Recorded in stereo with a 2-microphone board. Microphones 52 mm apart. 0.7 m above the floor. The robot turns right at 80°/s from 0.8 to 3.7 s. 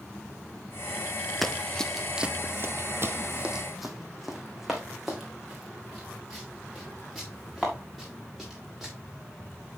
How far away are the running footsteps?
About 0.8 m.